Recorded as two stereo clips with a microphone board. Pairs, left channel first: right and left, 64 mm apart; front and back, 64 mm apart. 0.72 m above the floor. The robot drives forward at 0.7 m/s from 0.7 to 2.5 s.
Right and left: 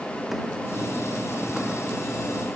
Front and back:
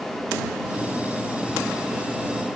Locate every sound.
Only background noise.